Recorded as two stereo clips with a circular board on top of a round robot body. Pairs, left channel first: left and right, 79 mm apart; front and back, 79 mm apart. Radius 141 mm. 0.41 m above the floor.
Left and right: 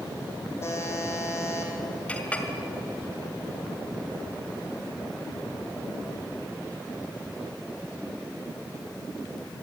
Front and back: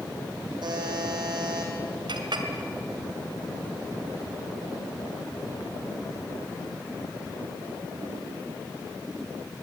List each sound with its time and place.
0.6 s a buzzer: 150° left, 5 m
2.1 s a clink: 165° left, 2.5 m